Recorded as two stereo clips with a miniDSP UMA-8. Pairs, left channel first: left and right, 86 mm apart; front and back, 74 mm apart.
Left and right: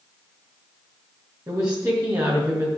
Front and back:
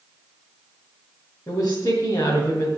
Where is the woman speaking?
45° right, 2.5 m.